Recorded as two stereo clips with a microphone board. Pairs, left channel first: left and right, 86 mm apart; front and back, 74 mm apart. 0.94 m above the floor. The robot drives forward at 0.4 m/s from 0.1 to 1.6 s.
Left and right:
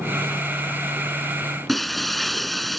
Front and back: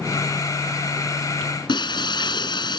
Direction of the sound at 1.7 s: Straight ahead.